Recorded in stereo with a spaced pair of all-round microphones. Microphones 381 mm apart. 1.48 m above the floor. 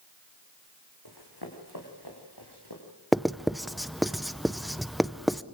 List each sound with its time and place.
1.1 s running footsteps: 65° left (ahead or behind), 4.5 m
3.1 s writing: centre (ahead or behind), 0.6 m